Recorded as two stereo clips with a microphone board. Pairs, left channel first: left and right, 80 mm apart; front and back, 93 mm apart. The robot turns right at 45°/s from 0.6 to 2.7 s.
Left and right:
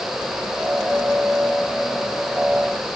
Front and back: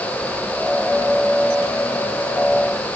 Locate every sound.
Only background noise.